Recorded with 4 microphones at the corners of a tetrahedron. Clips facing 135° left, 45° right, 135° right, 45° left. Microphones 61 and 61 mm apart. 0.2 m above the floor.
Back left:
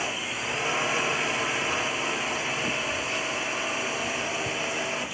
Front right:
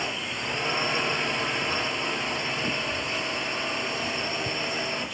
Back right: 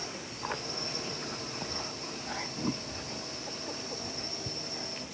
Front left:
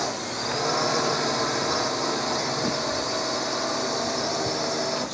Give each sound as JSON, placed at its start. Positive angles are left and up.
{"t": 0.0, "sound": "a drone", "azimuth_deg": 50}